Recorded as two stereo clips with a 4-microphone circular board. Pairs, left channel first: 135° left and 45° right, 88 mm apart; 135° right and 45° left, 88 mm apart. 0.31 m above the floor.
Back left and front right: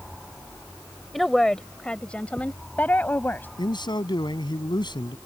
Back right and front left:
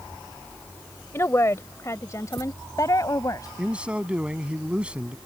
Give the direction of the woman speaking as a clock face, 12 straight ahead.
5 o'clock.